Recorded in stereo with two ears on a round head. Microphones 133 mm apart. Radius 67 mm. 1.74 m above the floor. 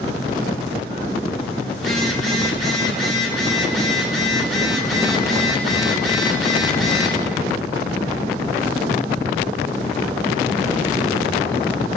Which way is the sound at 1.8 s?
Centre (ahead or behind).